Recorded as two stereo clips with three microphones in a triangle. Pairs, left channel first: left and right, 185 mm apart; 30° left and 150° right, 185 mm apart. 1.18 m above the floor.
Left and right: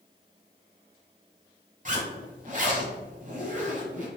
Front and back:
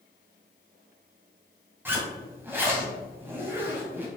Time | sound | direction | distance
1.9 | a zipper | 75° right | 1.3 m